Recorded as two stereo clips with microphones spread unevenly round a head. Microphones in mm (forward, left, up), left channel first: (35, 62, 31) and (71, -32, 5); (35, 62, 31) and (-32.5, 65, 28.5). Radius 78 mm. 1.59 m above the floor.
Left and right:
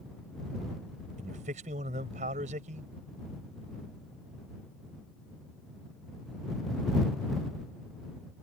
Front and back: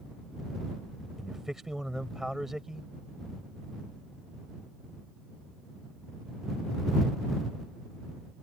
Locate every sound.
1.2 s a man speaking: 95° right